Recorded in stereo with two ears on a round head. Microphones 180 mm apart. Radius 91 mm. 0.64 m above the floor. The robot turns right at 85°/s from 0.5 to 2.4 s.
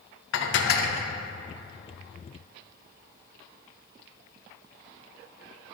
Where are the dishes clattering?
105° left, 0.6 m; by 1.1 s 155° left, 0.6 m.